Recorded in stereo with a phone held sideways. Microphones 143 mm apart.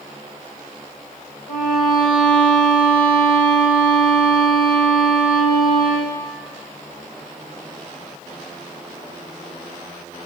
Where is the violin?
80° left, 3.5 m.